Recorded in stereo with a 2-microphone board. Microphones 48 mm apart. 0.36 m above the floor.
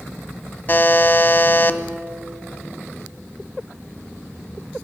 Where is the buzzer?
45° left (ahead or behind), 0.6 m.